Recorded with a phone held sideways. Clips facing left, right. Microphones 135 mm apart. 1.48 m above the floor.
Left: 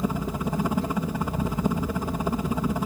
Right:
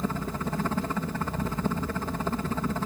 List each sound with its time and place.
0.0 s a helicopter: 10° left (ahead or behind)